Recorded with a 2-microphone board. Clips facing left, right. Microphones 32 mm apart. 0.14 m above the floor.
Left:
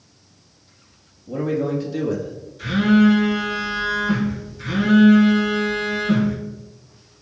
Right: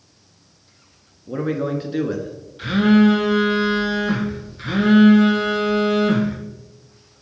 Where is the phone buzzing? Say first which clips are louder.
Right 1 dB; 45° right (ahead or behind), 1.9 m.